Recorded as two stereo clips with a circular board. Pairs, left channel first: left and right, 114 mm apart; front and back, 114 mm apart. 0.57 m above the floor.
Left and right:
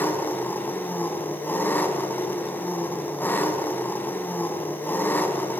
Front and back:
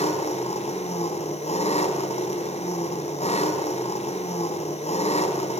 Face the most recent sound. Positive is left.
turn(degrees=15)